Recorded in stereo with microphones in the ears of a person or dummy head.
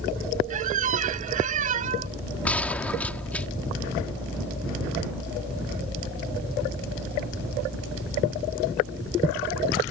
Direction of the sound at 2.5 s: 5° left (ahead or behind).